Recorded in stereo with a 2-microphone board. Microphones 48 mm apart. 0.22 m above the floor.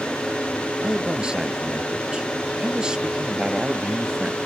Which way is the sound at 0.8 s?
15° right (ahead or behind).